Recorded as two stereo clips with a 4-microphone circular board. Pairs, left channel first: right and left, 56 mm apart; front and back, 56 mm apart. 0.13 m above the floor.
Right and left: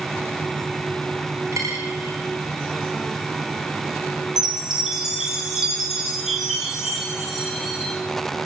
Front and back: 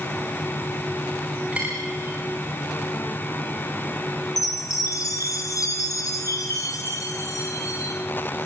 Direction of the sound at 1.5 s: 110° left.